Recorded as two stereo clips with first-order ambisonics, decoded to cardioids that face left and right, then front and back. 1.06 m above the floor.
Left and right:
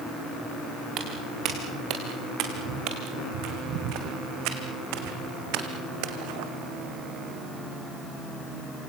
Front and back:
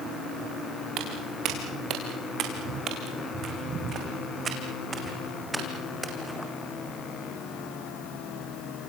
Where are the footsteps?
140° right, 4.5 m; by 6.5 s 90° right, 3 m.